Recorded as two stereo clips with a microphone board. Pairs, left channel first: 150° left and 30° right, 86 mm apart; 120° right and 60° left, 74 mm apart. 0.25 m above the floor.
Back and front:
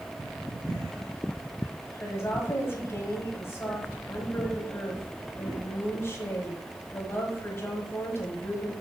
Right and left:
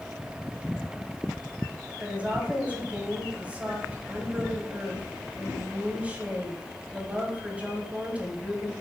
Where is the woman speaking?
120° left, 1.6 m.